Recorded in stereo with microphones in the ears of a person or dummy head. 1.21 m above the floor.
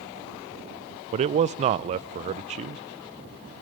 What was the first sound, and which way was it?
A man speaking, 35° right (ahead or behind).